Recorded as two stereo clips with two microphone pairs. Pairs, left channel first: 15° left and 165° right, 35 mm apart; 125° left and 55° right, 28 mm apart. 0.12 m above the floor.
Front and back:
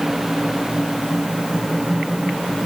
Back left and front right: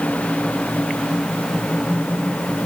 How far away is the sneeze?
No sneeze in this recording.